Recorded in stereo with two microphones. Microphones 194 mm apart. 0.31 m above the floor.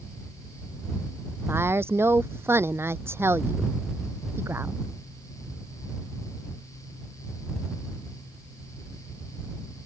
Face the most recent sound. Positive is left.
turn(degrees=-10)  # may be behind; listen again after turning